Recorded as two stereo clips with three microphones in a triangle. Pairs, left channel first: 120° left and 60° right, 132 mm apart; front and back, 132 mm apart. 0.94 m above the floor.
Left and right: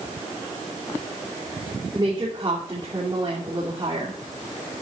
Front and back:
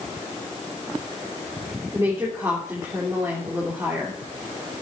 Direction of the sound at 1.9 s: 115° right.